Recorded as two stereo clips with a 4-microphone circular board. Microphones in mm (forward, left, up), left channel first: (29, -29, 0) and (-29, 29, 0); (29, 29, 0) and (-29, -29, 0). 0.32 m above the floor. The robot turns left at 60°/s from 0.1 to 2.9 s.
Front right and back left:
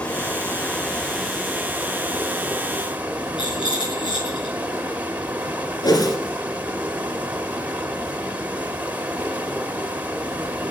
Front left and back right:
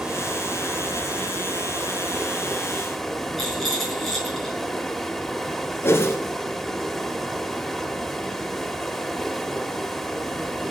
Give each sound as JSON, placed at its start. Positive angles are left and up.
{"t": 0.0, "sound": "running water", "azimuth_deg": -60, "distance_m": 1.1}
{"t": 3.4, "sound": "a rattle", "azimuth_deg": -45, "distance_m": 5.5}
{"t": 5.8, "sound": "a whoosh", "azimuth_deg": -15, "distance_m": 2.5}